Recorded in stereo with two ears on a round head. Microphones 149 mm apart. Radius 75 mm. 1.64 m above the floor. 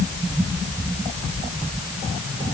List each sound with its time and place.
Only background noise.